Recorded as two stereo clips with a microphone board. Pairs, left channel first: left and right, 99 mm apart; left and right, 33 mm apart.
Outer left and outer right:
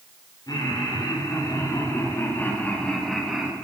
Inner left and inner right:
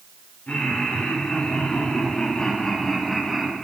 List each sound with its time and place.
0.5 s laughter: 40° left (ahead or behind), 4 m; by 3.5 s 10° right (ahead or behind), 1.5 m